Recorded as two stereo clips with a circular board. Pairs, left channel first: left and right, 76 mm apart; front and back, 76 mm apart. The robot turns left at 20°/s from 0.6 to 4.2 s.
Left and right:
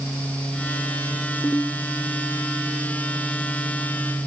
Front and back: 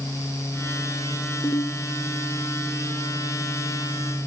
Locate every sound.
1.4 s a ringtone: 35° left, 2.5 m; by 1.8 s 25° left, 2.5 m